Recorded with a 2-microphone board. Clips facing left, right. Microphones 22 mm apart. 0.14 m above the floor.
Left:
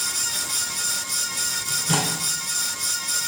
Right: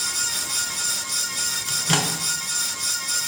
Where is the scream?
I don't hear a scream.